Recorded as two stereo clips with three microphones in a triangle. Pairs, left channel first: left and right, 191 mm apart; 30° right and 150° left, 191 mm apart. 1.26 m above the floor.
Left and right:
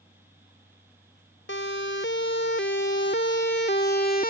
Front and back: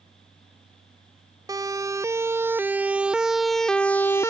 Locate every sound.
1.5 s a siren: 80° left; by 4.3 s 45° left